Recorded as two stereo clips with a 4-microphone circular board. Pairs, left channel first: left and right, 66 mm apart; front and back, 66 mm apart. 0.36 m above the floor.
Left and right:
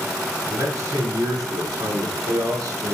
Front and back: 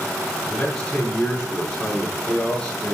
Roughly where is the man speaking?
Right.